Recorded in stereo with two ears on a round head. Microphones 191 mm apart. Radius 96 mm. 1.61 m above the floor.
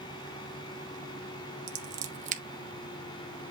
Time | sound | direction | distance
1.7 | scissors | 35° right (ahead or behind) | 1.2 m